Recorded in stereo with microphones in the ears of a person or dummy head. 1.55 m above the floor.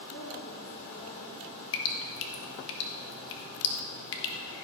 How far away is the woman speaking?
About 4 m.